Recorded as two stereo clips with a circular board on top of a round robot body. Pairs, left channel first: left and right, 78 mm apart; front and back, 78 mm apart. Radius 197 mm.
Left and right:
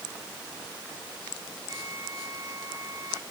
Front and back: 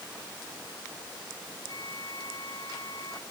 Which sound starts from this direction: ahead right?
A flute, at 1.7 s.